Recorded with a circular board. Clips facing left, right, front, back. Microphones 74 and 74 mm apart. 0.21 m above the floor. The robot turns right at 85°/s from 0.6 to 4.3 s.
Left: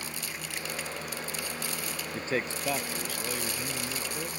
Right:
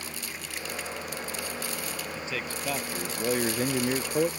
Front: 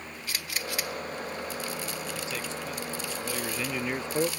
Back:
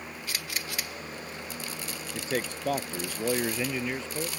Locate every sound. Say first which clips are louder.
2.1 s a man speaking: left 7 dB, back 3 dB; 125° left; by 4.3 s 50° right